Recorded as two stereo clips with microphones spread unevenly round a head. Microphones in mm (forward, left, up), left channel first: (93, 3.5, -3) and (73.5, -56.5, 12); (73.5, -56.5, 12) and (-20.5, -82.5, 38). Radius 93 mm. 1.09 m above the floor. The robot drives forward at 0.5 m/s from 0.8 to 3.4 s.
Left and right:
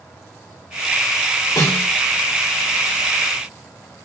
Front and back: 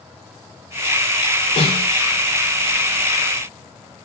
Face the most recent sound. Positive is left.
turn(degrees=45)